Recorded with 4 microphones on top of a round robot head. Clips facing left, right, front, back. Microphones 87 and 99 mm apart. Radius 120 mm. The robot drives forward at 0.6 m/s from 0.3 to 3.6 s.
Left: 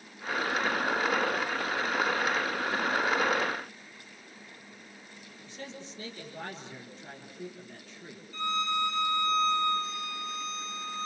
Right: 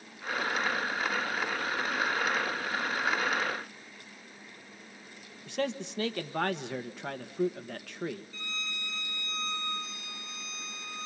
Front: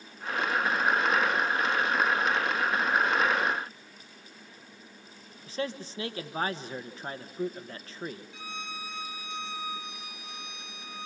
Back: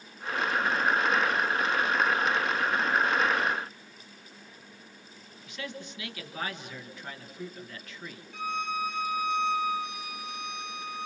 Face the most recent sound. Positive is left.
turn(degrees=140)